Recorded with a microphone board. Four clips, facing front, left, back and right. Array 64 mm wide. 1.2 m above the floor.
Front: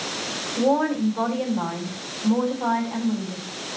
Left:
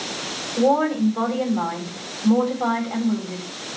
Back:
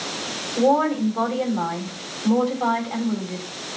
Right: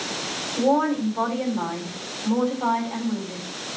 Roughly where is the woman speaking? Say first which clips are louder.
Left 2 dB, back 2 dB; behind left.